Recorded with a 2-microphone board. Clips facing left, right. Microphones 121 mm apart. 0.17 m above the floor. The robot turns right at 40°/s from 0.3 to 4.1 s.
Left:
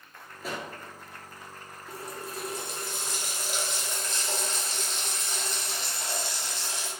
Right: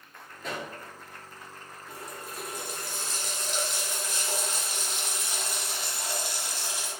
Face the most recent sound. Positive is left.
turn(degrees=-165)